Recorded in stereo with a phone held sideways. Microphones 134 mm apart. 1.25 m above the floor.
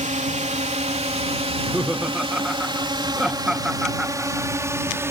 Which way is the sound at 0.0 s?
60° right (ahead or behind).